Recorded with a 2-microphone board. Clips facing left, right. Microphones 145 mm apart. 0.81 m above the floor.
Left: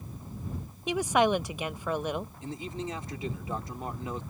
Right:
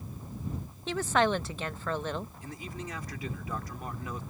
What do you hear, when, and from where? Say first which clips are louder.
0.9 s a woman speaking: left 2 dB; 15° left (ahead or behind)
2.4 s a man speaking: left 5 dB; 25° left (ahead or behind)